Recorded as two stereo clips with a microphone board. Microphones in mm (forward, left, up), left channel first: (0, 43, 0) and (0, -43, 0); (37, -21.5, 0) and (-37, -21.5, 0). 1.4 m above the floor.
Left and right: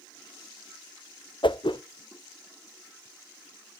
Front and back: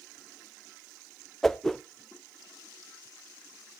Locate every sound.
1.4 s a whoosh: 85° left, 0.6 m